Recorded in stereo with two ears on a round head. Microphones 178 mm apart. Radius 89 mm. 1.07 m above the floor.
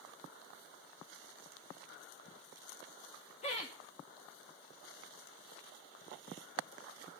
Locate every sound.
3.4 s laughter: 30° left (ahead or behind), 1.1 m